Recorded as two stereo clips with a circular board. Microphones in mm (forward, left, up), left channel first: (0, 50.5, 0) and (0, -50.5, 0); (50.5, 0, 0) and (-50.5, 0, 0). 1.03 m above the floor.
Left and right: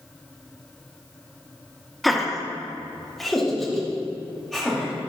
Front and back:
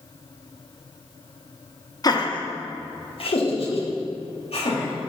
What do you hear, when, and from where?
2.0 s laughter: straight ahead, 0.8 m